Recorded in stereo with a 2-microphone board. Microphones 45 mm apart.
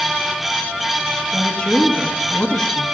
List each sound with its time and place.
1.3 s a woman speaking: 20° left (ahead or behind), 1.0 m